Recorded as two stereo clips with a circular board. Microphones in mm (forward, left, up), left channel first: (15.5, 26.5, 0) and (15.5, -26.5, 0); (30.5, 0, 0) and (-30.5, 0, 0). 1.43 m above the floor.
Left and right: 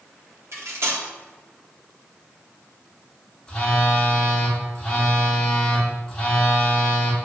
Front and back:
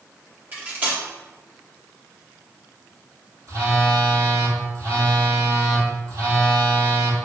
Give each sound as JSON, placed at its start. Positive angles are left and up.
{"t": 0.5, "sound": "cutlery clinking", "azimuth_deg": -120, "distance_m": 2.5}
{"t": 3.5, "sound": "a phone buzzing", "azimuth_deg": 160, "distance_m": 2.0}